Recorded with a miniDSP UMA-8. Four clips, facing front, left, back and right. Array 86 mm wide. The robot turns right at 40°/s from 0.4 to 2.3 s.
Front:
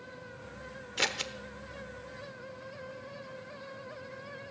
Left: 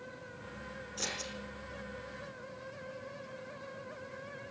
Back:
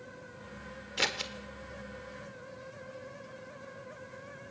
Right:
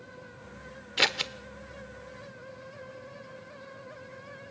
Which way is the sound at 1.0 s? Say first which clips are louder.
Right 12 dB, even; 90° right.